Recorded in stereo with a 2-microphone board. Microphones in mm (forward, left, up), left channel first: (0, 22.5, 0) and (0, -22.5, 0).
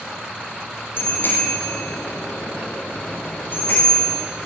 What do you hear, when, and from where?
1.0 s a bicycle bell: 55° left (ahead or behind), 3.5 m; by 4.2 s 45° left (ahead or behind), 6.5 m